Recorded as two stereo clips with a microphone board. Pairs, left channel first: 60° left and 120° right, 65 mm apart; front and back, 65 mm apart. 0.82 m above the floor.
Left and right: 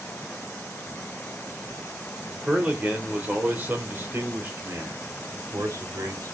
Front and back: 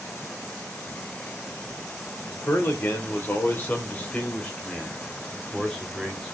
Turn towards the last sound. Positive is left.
turn(degrees=-85)